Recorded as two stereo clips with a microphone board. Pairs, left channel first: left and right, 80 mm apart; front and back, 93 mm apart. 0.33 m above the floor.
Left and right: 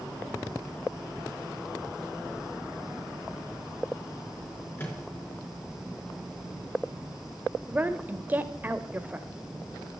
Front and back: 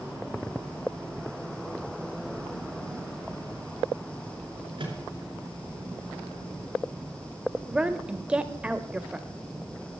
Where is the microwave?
150° left, 4.5 m.